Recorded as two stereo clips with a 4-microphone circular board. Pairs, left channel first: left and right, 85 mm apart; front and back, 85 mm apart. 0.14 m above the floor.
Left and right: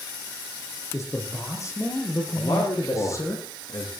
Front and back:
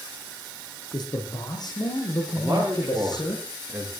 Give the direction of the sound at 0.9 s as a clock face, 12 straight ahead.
11 o'clock.